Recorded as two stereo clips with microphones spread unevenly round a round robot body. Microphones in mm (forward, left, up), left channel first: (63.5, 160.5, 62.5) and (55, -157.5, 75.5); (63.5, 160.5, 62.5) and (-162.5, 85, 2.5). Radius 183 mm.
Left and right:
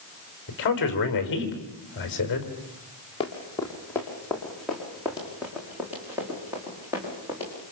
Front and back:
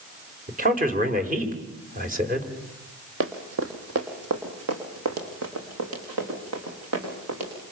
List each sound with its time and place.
0.5 s a man speaking: 145° left, 4.5 m
3.2 s running footsteps: 165° left, 2.5 m; by 7.5 s 170° right, 6.5 m